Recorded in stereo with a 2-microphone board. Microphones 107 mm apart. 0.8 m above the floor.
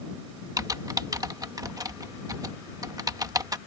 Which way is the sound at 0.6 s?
35° right (ahead or behind).